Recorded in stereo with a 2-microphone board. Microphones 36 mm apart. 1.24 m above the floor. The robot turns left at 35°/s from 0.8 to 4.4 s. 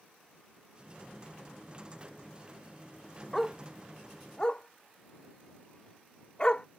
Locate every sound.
3.3 s a dog barking: 5° left (ahead or behind); by 6.7 s 25° left (ahead or behind)